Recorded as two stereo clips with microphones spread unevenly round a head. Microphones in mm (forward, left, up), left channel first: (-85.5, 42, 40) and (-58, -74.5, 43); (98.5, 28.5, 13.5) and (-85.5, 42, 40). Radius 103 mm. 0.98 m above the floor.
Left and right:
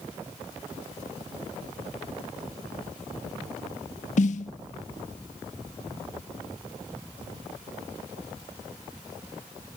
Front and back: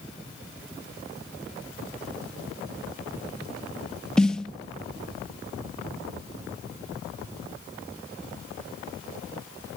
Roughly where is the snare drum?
Left.